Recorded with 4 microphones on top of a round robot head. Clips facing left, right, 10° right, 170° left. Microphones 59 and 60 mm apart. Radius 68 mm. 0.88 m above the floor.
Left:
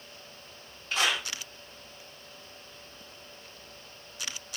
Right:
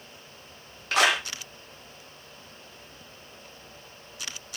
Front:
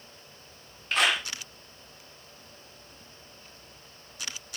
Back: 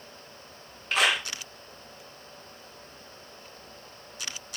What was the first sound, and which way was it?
A clap, 100° right.